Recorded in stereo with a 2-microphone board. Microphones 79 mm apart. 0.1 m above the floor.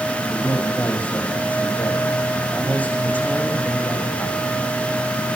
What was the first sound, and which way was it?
A man speaking, 20° left (ahead or behind).